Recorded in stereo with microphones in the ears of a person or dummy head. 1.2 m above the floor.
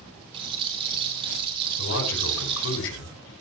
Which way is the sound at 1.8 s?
70° left (ahead or behind).